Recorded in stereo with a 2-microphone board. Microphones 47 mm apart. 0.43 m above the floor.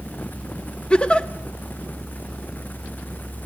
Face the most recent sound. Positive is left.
turn(degrees=20)  # may be behind; listen again after turning